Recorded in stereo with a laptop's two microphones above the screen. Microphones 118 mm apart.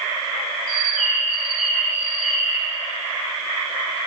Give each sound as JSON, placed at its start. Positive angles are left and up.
{"t": 0.7, "sound": "a bird", "side_deg": 0, "distance_m": 2.5}